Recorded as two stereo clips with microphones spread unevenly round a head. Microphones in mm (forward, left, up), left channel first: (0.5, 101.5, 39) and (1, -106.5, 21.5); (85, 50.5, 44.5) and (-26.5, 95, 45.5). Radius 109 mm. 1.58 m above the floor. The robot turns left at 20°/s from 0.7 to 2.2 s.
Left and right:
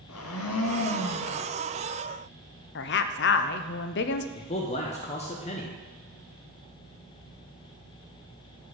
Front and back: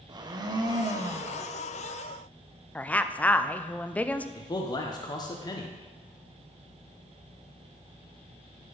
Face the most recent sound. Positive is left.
turn(degrees=30)